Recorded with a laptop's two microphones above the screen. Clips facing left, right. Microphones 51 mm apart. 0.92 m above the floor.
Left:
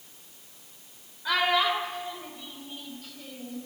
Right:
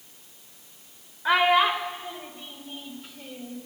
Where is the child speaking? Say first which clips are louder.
Right 5 dB; 30° right (ahead or behind), 1.8 m; by 3.6 s 25° right (ahead or behind), 3 m.